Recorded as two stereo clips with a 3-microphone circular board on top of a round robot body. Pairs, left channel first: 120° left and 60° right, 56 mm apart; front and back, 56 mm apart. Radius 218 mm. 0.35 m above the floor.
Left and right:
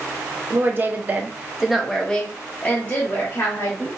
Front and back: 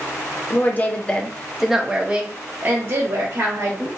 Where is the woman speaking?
35° right, 1.1 m; by 3.9 s 160° left, 1.4 m.